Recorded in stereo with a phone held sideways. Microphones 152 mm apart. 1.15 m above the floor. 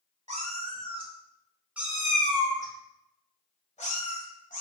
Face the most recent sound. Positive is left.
turn(degrees=60)  # may be behind; listen again after turning